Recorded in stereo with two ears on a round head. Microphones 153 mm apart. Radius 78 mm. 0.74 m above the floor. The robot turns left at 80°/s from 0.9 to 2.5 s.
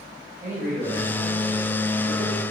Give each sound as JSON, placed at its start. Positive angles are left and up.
{"t": 0.4, "sound": "a man speaking", "azimuth_deg": -15, "distance_m": 4.0}